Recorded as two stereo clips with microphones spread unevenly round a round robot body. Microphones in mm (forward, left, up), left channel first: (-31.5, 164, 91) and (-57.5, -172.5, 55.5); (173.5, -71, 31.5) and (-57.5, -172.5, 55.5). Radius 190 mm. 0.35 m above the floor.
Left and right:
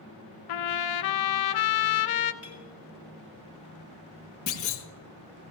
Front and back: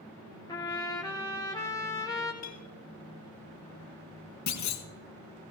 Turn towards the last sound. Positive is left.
turn(degrees=30)